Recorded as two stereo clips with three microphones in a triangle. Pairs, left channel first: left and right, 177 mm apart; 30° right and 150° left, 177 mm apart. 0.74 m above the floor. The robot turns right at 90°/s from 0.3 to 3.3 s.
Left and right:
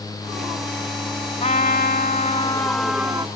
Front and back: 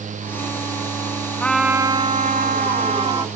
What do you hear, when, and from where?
1.4 s a trumpet: 45° left; by 3.3 s 145° right